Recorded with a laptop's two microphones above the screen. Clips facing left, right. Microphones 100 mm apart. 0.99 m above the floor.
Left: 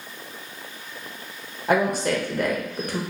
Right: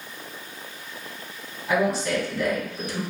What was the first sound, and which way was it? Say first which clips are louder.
A woman speaking: left 2 dB; 50° left (ahead or behind).